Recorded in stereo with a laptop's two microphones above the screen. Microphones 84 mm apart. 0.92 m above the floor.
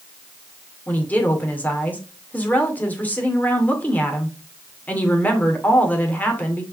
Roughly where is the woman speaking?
Centre.